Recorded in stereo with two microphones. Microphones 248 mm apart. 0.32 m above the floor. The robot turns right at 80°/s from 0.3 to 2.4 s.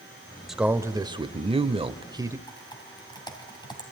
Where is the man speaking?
Centre (ahead or behind), 0.9 m; by 2.4 s 10° right (ahead or behind), 0.9 m.